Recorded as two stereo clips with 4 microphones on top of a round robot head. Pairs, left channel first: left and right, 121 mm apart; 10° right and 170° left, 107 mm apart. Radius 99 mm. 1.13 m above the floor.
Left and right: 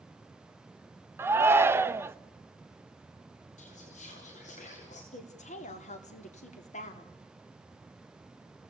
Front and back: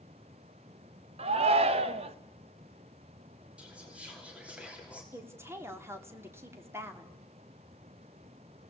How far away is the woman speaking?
About 2.5 m.